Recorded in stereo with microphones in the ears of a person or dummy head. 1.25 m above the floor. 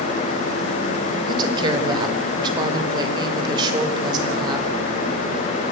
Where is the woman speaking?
30° right (ahead or behind), 5 m.